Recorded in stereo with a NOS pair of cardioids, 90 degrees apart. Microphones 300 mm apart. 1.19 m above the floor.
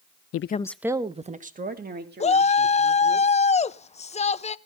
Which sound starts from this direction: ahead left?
A woman speaking, at 0.3 s.